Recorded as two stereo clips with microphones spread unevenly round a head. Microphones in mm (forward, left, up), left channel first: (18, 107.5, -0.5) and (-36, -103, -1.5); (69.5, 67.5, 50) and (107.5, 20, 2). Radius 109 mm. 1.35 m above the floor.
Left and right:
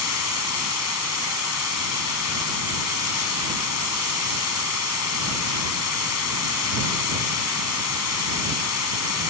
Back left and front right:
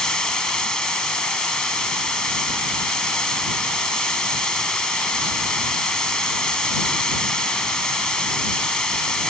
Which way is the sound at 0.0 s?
55° left.